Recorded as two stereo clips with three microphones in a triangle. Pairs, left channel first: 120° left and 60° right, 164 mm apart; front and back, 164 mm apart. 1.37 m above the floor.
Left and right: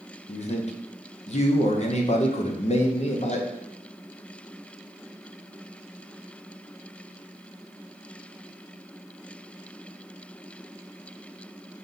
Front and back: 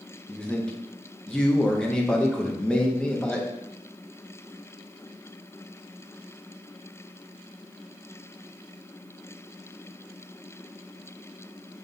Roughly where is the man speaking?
Left.